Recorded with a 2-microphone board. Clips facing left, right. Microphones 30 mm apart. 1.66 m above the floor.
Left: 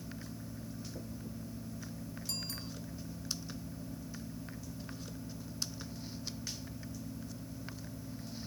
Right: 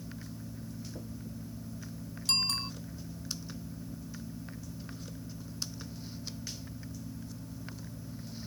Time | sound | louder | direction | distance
2.3 | a bicycle bell | right 13 dB | 70° right (ahead or behind) | ?